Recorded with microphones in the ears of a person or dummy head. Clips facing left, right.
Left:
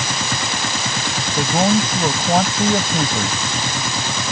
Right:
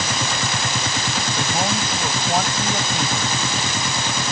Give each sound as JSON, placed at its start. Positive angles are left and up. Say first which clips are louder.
{"t": 1.4, "sound": "a man speaking", "louder": "left 9 dB", "side_deg": 45}